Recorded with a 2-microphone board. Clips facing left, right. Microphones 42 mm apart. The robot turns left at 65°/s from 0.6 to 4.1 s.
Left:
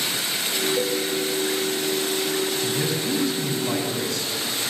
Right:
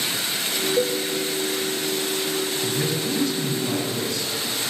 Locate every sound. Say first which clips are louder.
0.8 s a cowbell: right 5 dB; 40° right (ahead or behind), 1.1 m; by 1.0 s 55° right (ahead or behind), 1.1 m
2.6 s a man speaking: even; 155° right, 2.5 m; by 4.7 s 110° left, 2.5 m